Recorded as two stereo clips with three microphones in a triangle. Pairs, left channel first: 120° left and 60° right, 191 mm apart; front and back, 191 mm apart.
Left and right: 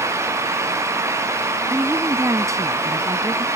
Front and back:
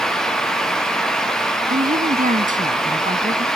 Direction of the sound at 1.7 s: 140° right.